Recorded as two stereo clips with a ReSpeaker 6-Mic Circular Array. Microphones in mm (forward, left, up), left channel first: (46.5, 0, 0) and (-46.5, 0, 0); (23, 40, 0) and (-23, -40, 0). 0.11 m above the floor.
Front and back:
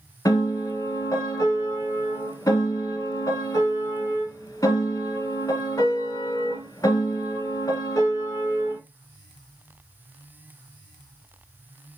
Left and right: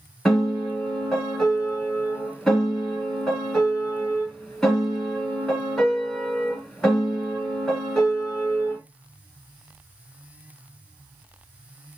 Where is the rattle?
I don't hear a rattle.